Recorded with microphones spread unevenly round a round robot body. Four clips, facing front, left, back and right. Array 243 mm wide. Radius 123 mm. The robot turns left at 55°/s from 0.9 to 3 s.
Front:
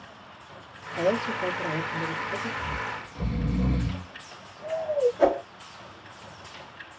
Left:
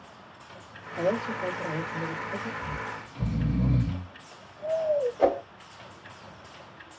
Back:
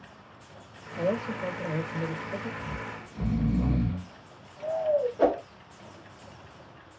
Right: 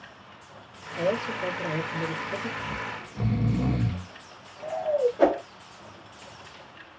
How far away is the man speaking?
About 1.7 m.